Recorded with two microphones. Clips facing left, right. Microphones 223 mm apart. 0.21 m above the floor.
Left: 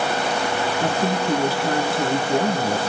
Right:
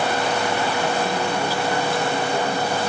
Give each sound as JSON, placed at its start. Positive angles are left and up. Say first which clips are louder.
{"t": 0.8, "sound": "a woman speaking", "louder": "left 1 dB", "side_deg": 65, "distance_m": 3.0}